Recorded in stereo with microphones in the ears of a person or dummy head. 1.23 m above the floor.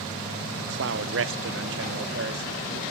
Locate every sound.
0.6 s a man speaking: 55° right (ahead or behind), 0.6 m